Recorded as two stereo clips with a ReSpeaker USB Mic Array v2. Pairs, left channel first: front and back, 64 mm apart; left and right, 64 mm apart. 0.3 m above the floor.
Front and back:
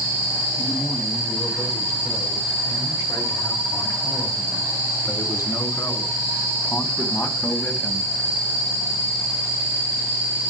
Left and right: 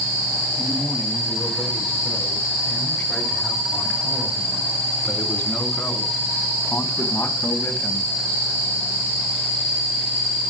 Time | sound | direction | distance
0.6 | a man speaking | 15° left | 6 m